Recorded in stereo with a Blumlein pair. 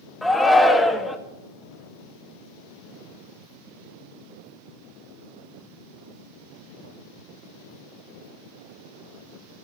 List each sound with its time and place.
0.2 s a shout: 10° left, 1.7 m